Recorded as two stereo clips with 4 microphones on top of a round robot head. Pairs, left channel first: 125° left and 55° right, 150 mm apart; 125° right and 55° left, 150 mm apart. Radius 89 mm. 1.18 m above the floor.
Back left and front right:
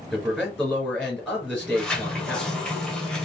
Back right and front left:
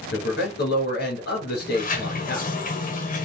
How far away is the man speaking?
About 2.5 m.